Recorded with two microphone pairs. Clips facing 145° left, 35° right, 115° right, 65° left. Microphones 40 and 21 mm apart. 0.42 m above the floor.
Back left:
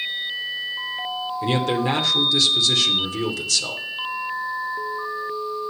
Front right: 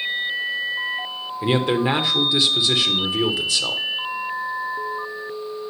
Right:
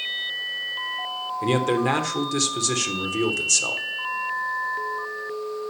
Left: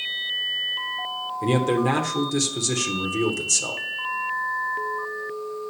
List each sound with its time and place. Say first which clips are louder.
1.4 s a man speaking: front right 3 dB, even; 70° right, 1.1 m